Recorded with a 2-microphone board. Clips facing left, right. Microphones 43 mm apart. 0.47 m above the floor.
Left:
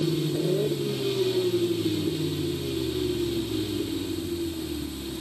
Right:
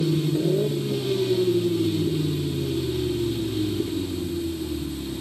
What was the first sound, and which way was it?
Only background noise.